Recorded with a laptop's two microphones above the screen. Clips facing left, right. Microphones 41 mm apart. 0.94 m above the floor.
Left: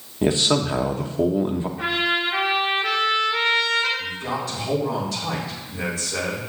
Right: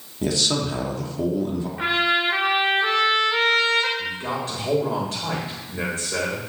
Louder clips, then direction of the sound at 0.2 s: Left 3 dB; 30° left (ahead or behind).